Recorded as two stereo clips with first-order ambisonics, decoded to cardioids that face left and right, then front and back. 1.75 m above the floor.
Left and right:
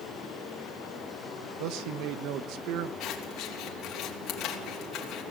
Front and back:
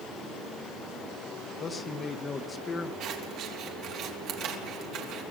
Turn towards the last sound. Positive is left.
turn(degrees=135)